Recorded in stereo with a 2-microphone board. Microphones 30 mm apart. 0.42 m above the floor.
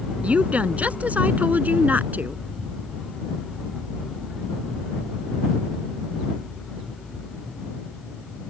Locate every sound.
0.2 s a woman speaking: 50° right (ahead or behind); by 2.4 s 75° right (ahead or behind)